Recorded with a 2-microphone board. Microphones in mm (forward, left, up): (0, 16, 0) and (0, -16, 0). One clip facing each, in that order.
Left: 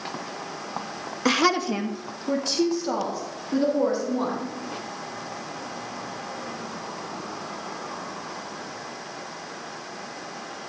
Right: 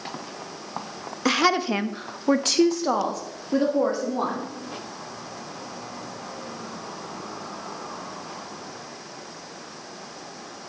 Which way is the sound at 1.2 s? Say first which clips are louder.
Even; 5° left (ahead or behind).